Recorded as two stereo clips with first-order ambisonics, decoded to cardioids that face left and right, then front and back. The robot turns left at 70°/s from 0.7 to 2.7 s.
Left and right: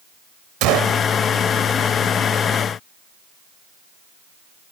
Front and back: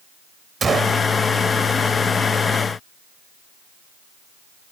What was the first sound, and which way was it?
A gunshot, 110° right.